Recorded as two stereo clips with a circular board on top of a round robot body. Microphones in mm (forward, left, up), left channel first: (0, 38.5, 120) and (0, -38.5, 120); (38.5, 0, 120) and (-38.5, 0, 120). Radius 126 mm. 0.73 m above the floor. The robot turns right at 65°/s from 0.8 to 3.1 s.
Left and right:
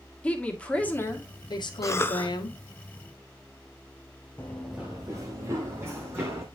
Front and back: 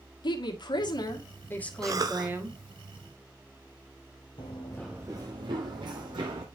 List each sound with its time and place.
0.2 s a woman speaking: 15° left, 1.9 m; by 2.6 s 135° left, 1.9 m
1.8 s a cough: 135° left, 0.9 m; by 2.3 s 165° left, 0.9 m
4.4 s running footsteps: 20° left, 0.9 m; by 6.5 s 150° right, 2 m